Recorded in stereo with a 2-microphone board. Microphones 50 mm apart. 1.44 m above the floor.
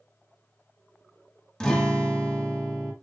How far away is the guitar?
About 0.8 m.